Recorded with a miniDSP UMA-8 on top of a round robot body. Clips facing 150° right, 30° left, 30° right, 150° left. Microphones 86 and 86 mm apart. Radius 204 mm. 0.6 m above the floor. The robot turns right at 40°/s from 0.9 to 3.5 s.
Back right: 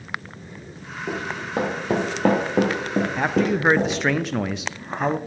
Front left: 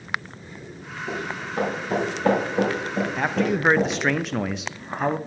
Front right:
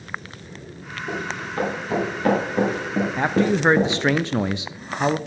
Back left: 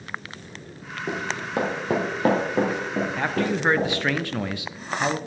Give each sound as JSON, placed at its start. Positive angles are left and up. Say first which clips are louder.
{"t": 1.1, "sound": "running footsteps", "louder": "back right 2 dB, even", "azimuth_deg": 150, "distance_m": 2.5}
{"t": 3.2, "sound": "a man speaking", "louder": "back right 1 dB, front right 7 dB", "azimuth_deg": -75, "distance_m": 0.5}